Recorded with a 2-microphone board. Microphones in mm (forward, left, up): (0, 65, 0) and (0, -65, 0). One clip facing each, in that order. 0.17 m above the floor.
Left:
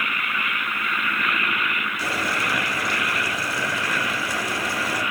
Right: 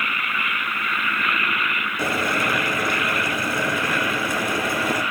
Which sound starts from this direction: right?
Boiling, at 2.0 s.